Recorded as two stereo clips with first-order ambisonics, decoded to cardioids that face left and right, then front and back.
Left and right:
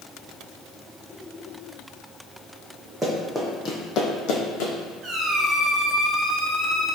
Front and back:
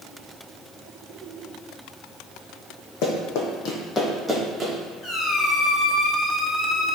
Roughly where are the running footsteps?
Ahead.